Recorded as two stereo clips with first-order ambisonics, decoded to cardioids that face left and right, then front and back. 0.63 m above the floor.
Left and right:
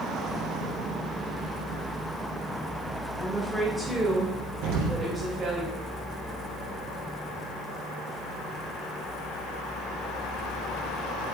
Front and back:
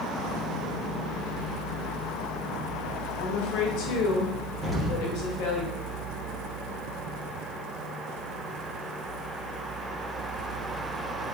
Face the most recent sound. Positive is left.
turn(degrees=-75)